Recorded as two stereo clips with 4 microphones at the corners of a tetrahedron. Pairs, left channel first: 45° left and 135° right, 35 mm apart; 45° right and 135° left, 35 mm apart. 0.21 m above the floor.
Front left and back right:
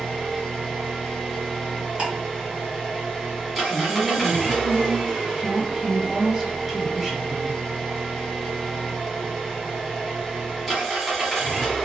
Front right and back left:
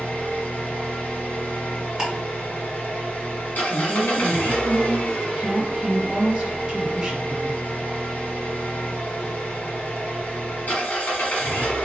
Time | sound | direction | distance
0.0 | an engine running | 50° right | 1.0 m
2.0 | ticking | 170° right | 1.5 m
3.7 | a woman speaking | 155° left | 1.0 m